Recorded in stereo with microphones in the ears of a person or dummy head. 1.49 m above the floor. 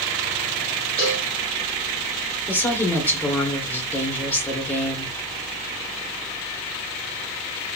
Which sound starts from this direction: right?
A cowbell, at 1.0 s.